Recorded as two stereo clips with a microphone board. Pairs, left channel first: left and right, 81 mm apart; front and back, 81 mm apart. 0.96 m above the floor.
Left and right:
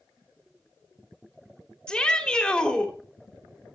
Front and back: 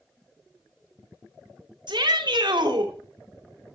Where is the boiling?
No boiling in this recording.